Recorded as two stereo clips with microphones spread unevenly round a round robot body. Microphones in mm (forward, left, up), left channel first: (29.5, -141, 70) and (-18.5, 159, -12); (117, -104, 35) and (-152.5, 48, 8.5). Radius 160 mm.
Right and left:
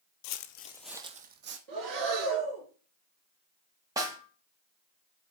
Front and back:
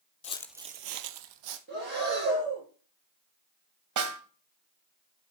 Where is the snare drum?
170° left, 1.8 m.